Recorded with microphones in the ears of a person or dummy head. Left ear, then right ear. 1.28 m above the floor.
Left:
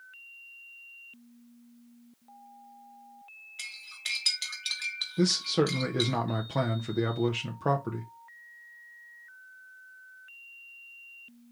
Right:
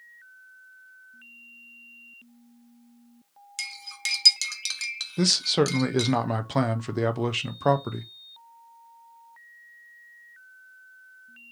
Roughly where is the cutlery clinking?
Right.